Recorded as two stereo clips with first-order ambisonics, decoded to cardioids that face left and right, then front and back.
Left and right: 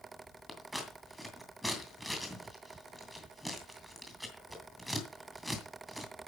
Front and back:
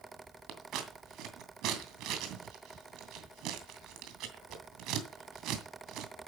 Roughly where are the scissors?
Behind.